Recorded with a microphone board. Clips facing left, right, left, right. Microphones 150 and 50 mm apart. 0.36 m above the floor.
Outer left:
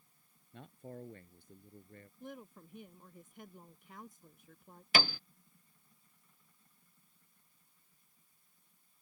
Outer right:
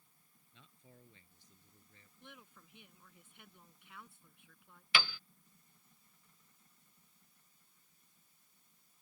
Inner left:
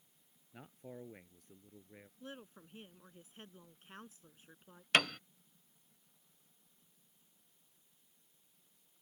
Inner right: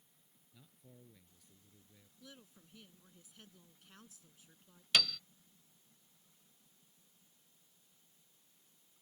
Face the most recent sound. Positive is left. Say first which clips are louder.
# outer left 4 dB, inner left 3 dB
turn(degrees=45)  # may be behind; listen again after turning